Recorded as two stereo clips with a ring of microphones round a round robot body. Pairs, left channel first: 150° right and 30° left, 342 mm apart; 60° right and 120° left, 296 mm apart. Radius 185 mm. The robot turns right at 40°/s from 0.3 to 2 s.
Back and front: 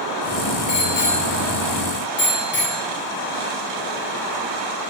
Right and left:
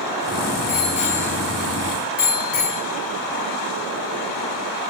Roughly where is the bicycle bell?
Behind right.